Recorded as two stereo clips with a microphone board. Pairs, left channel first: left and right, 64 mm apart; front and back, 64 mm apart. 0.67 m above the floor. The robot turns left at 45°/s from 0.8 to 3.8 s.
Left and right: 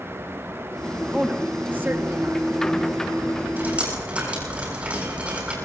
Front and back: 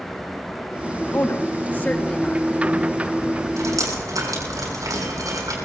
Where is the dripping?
150° right, 7 m; by 5.5 s 160° right, 7 m.